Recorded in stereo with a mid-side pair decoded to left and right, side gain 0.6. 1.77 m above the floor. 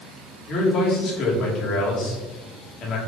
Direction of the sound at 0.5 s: 55° left.